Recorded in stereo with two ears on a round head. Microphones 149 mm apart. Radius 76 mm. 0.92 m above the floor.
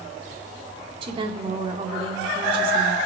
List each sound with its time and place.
1.0 s a woman speaking: 35° right (ahead or behind), 1.9 m